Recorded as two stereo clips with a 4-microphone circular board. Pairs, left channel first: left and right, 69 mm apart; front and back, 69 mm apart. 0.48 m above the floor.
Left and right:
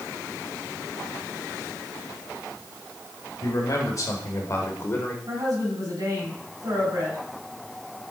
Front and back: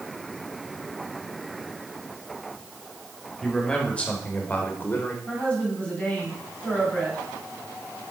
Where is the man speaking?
75° left, 1.9 m; by 5.2 s 40° left, 1.5 m.